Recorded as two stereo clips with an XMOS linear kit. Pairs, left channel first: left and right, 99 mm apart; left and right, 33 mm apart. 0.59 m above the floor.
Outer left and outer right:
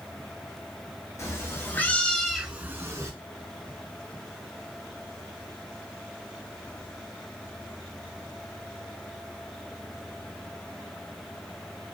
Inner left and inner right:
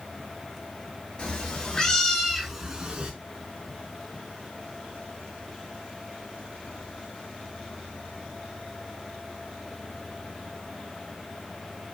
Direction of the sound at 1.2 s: 30° left (ahead or behind).